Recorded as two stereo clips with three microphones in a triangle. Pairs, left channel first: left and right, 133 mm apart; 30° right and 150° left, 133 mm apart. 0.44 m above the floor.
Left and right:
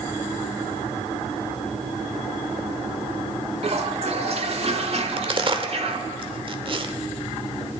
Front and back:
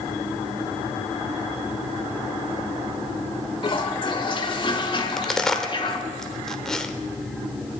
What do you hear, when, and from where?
3.6 s a toilet flushing: 75° right, 1.4 m
5.0 s a crack: 115° right, 1.1 m